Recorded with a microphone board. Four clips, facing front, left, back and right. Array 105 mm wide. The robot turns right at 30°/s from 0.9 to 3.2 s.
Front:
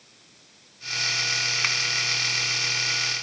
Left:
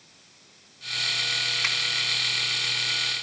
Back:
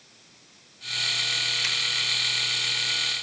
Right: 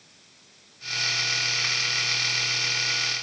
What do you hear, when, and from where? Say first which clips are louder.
1.6 s a finger snap: left 1 dB, front 7 dB; 15° left, 2.5 m; by 1.8 s 20° left, 2.5 m